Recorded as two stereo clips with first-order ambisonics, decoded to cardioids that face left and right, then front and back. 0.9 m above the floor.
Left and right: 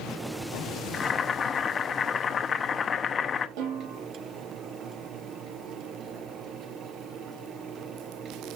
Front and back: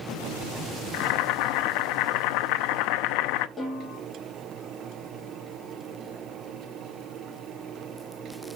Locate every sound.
0.9 s boiling: 20° left, 0.6 m
3.6 s a snare drum: 85° right, 5.5 m